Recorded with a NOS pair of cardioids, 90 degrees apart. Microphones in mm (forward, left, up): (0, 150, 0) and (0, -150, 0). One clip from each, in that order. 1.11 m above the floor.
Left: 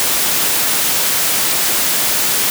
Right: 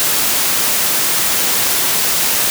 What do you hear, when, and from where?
Only background noise.